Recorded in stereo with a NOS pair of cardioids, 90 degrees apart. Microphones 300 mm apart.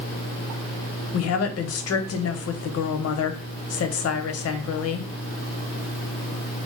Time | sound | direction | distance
1.1 | a woman speaking | 55° left | 0.7 m